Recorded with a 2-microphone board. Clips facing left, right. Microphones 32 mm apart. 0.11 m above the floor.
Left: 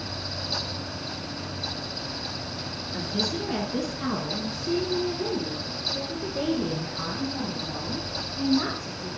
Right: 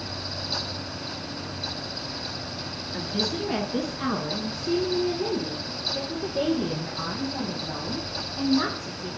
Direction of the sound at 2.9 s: 10° right (ahead or behind).